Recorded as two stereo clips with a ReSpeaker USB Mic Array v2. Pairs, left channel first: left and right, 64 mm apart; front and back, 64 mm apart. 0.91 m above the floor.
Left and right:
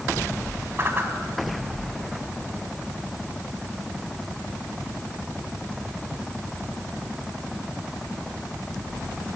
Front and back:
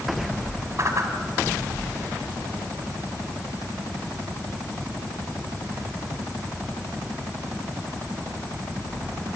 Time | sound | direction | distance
0.8 | a whoosh | 140° right | 2.5 m